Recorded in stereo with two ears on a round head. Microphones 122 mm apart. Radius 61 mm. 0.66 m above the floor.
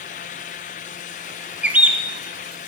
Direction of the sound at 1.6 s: 10° right (ahead or behind).